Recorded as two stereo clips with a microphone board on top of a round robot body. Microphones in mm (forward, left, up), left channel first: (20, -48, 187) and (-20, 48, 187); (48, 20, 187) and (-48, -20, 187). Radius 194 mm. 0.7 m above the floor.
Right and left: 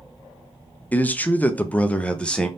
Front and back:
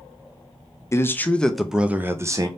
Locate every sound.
0.9 s a man speaking: 10° right, 0.9 m; by 2.5 s 145° right, 0.9 m